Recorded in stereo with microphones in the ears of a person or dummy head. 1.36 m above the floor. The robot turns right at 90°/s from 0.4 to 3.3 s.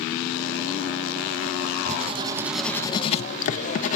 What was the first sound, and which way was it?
Writing, 70° right.